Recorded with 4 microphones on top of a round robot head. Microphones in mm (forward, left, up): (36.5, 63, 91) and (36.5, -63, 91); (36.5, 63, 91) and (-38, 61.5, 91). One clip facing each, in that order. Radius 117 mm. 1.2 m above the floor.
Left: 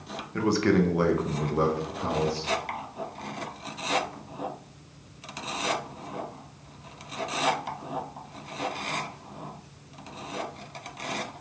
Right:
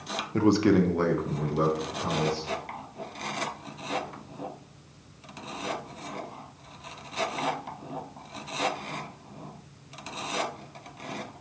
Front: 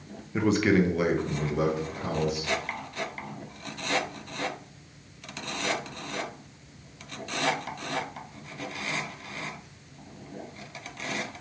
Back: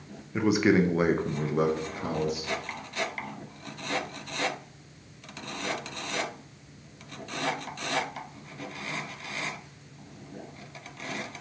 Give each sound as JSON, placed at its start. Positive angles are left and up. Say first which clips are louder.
{"t": 0.3, "sound": "a man speaking", "louder": "right 2 dB, even", "azimuth_deg": -90, "distance_m": 0.5}